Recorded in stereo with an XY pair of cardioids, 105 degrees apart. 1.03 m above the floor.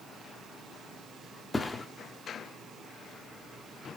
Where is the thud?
20° left, 1.1 m.